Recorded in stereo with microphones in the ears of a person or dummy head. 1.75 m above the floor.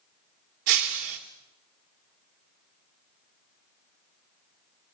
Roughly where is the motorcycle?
No motorcycle in this recording.